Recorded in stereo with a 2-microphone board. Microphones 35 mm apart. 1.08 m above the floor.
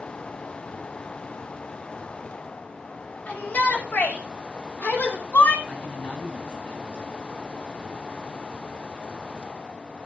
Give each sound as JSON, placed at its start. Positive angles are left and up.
{"t": 3.3, "sound": "a shout", "side_deg": 45, "distance_m": 6.0}
{"t": 5.7, "sound": "a man speaking", "side_deg": 30, "distance_m": 7.5}